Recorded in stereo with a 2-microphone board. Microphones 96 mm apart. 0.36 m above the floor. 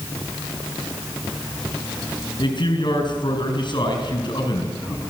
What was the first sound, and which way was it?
A man speaking, 55° left (ahead or behind).